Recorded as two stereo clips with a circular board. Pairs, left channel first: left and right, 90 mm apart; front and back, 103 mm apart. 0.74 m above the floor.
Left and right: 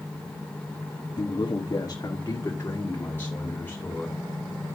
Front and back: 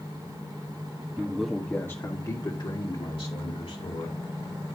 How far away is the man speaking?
About 1.3 m.